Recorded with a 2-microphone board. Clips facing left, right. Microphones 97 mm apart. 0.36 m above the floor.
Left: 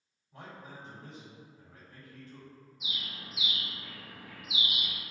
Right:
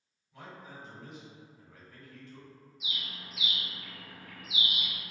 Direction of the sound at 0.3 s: 45° left (ahead or behind).